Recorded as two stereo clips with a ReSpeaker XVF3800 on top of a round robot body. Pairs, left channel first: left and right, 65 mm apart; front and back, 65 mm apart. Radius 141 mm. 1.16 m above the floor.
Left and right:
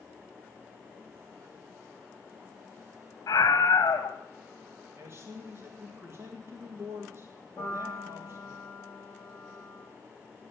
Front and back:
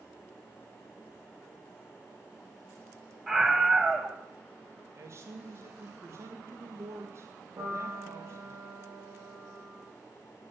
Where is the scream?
110° left, 1.2 m.